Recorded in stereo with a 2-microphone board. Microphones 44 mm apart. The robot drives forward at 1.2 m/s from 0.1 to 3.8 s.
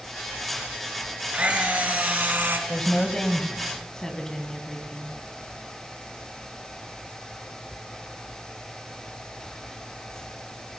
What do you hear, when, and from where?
1.3 s a camera shutter: 30° right (ahead or behind), 2.5 m; by 2.6 s 55° right (ahead or behind), 1.6 m
2.7 s a woman speaking: 20° left (ahead or behind), 1.3 m; by 5.2 s 15° left (ahead or behind), 2 m